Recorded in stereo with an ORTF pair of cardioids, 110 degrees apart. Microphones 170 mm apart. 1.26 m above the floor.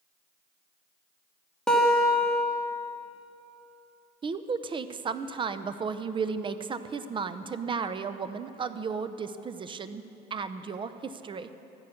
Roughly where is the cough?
No cough in this recording.